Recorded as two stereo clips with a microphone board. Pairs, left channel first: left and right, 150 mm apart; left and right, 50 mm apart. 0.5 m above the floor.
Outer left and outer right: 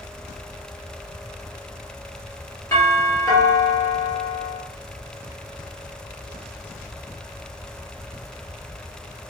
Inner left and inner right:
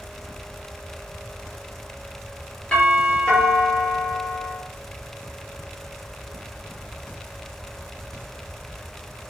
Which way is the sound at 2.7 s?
20° left (ahead or behind).